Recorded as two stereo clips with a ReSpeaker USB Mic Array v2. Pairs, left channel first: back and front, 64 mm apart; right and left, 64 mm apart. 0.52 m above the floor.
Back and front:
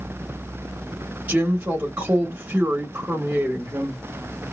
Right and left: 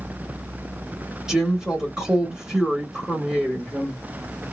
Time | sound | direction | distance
1.3 | a woman speaking | 20° left | 1.2 m